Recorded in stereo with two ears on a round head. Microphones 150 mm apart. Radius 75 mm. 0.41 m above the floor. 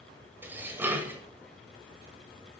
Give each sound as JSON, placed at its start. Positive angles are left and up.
{"t": 0.4, "sound": "dishes clattering", "side_deg": -10, "distance_m": 1.2}